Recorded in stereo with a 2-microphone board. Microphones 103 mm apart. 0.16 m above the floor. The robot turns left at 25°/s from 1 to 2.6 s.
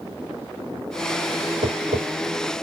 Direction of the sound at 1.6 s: 85° right.